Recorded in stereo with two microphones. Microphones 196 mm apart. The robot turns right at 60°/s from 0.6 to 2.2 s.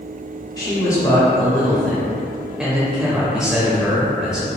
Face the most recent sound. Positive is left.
turn(degrees=-5)  # may be behind; listen again after turning